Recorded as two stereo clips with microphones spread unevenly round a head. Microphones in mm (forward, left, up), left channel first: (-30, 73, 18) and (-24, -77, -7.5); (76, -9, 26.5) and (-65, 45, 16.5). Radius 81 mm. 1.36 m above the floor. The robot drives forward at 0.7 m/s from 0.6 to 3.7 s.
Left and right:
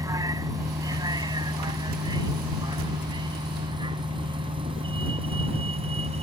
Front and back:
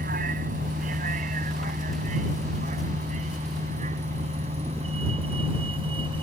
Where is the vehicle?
160° right; by 6.2 s 140° right.